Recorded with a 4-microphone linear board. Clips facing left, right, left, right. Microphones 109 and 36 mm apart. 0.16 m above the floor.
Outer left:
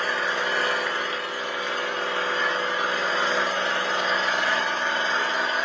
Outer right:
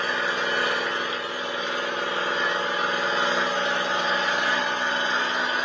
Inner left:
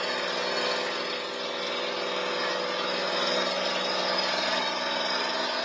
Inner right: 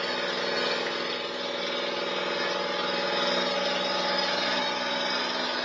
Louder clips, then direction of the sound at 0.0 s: Even, even; 20° right (ahead or behind).